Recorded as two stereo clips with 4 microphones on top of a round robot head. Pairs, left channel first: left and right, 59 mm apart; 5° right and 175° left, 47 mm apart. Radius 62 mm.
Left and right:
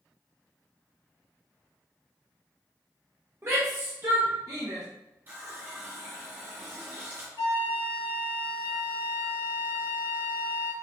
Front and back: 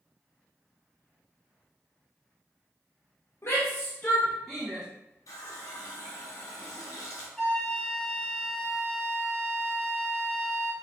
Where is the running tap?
30° right, 1.0 m.